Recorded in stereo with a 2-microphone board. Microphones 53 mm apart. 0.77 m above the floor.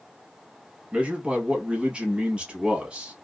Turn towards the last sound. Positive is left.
turn(degrees=-20)  # may be behind; listen again after turning